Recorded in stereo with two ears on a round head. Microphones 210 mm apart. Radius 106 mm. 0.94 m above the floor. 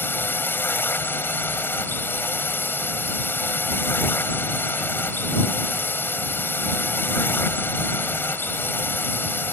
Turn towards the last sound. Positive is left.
turn(degrees=10)  # may be behind; listen again after turning